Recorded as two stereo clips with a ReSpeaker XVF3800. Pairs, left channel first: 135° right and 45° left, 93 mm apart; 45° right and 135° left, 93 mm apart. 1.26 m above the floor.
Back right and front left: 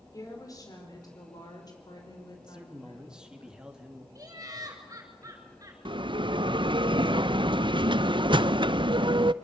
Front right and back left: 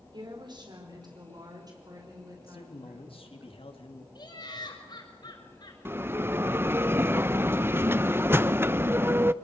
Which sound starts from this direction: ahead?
Laughter, at 4.2 s.